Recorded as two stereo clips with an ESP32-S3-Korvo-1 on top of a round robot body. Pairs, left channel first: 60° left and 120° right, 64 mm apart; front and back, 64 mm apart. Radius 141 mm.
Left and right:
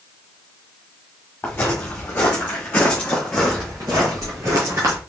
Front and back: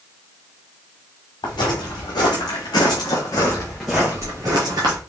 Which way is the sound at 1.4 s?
5° right.